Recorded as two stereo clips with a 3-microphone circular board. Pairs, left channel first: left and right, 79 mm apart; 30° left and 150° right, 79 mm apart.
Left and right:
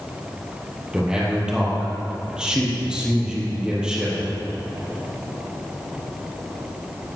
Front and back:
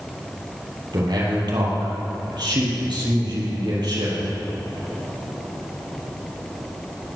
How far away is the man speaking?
About 5.5 m.